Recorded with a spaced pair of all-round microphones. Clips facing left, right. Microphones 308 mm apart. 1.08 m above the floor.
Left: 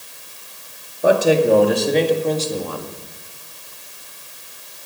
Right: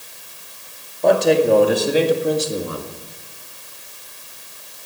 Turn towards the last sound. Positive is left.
turn(degrees=-25)  # may be behind; listen again after turning